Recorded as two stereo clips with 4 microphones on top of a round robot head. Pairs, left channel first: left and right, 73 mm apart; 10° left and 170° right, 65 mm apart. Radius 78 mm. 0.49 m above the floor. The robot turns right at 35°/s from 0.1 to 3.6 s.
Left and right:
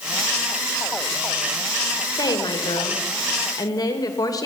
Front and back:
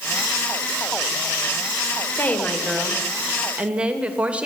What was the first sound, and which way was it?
A woman speaking, 70° left.